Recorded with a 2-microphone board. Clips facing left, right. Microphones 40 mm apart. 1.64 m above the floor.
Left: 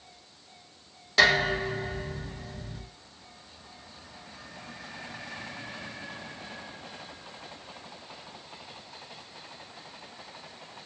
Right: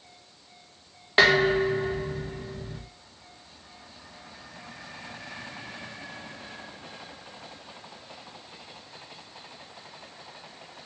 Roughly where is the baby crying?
I don't hear a baby crying.